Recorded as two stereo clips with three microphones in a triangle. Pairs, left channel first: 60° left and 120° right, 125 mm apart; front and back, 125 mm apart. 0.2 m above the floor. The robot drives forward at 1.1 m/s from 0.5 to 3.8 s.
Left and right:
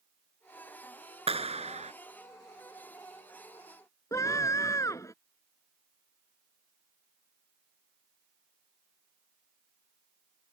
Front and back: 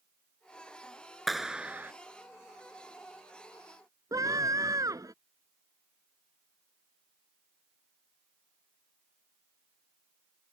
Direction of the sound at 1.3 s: 90° right.